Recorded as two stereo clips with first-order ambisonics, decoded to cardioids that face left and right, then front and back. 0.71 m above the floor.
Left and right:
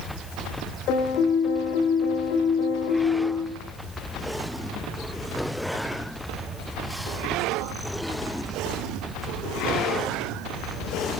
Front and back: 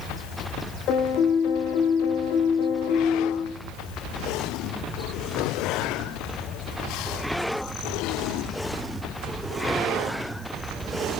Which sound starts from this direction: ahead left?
A piano, at 0.9 s.